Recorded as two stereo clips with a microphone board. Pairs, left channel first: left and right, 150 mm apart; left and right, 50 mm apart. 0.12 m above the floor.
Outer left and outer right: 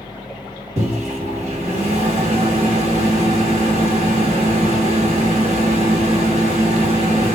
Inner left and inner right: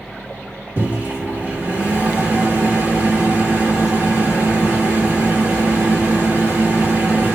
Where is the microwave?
45° right (ahead or behind), 2 m.